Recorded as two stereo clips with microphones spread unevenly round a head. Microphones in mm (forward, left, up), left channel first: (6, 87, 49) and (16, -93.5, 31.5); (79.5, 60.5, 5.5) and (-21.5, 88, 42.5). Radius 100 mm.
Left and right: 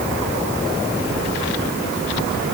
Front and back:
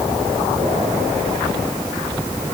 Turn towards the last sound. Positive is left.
No sound to turn to.